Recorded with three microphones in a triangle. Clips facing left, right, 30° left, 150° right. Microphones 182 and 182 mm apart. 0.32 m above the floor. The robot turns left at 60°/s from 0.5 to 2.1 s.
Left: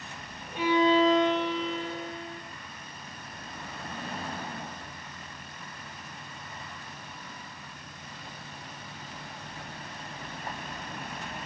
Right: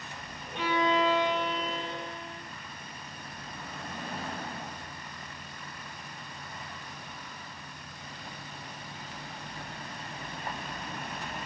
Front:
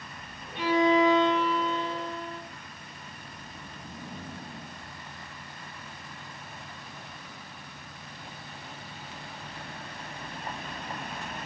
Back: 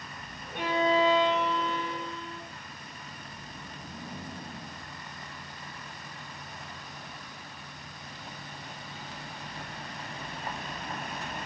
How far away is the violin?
About 6.5 m.